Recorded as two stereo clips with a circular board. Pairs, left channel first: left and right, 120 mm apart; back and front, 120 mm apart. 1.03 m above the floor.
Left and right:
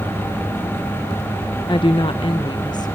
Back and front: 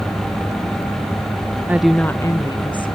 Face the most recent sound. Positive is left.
turn(degrees=140)